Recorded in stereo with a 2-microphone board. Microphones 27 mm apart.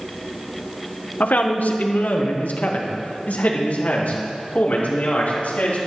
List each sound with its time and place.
1.2 s a man speaking: 80° left, 1.4 m; by 5.8 s 65° left (ahead or behind), 4 m